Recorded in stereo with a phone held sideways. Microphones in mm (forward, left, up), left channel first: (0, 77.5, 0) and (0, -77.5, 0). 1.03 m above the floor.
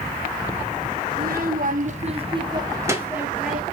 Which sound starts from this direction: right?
A child speaking, at 1.1 s.